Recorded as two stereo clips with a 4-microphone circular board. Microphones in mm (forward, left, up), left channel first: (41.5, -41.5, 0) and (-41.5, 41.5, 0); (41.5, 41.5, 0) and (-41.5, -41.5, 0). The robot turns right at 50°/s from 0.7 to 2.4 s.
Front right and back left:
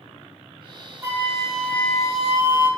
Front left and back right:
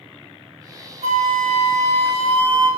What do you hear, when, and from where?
1.0 s a flute: 155° right, 0.7 m; by 2.7 s 90° right, 0.7 m